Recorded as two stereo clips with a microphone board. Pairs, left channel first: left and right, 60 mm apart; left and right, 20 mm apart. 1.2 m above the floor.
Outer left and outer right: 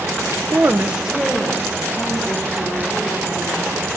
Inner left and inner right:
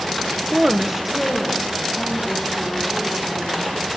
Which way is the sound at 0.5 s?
45° right (ahead or behind).